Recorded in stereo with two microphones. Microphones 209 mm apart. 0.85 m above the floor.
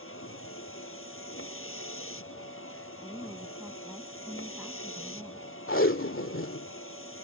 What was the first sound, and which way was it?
A vehicle, 90° left.